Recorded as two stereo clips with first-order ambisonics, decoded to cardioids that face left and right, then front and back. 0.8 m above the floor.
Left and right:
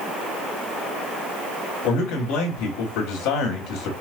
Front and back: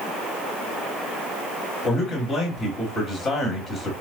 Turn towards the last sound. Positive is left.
turn(degrees=70)